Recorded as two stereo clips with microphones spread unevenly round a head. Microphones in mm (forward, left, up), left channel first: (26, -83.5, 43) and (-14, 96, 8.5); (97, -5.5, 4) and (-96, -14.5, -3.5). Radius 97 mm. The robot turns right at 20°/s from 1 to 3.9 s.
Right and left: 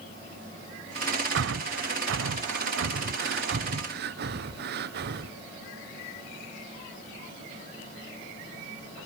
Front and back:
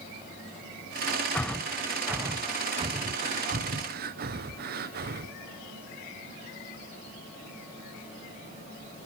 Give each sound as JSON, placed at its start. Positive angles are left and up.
{"t": 1.4, "sound": "breathing", "azimuth_deg": 85, "distance_m": 0.8}